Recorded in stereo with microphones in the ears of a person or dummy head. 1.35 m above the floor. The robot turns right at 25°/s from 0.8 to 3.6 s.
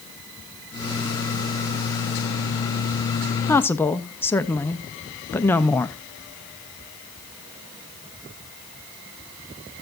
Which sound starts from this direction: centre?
A woman speaking, at 3.5 s.